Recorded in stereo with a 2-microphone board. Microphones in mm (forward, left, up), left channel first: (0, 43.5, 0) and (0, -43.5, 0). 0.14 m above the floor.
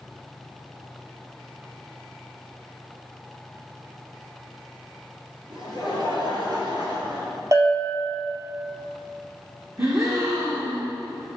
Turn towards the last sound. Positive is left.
turn(degrees=-40)  # may be behind; listen again after turning